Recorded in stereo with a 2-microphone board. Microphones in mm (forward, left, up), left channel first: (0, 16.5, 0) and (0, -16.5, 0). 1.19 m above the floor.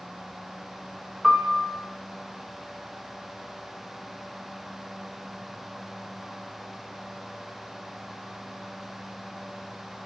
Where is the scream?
I don't hear a scream.